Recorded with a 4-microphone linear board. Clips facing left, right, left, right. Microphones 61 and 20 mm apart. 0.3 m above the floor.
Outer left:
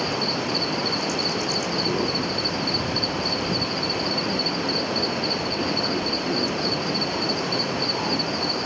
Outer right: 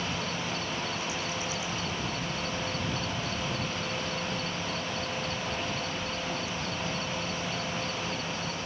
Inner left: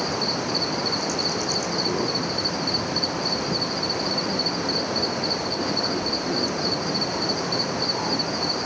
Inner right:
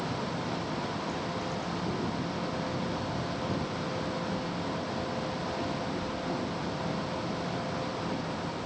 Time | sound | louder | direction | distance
0.0 | an insect | outer left 8 dB, inner left 9 dB | 75° left (ahead or behind) | ?